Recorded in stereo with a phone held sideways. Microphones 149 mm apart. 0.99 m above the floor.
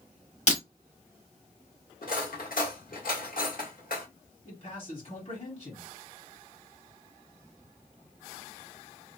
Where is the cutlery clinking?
70° left (ahead or behind), 1.3 m.